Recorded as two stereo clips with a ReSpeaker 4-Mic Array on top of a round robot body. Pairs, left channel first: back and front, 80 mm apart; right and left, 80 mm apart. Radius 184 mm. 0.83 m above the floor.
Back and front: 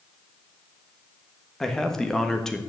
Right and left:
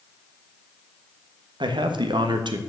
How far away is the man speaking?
About 1.5 m.